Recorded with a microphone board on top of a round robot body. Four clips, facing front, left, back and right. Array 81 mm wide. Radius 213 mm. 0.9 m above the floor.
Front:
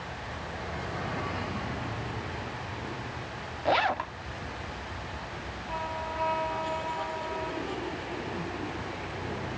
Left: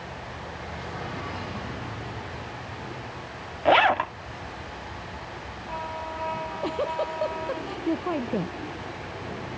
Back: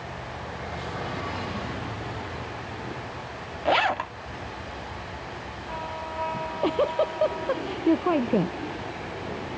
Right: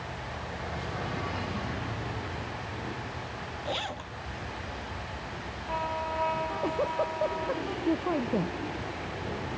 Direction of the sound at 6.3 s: 170° left.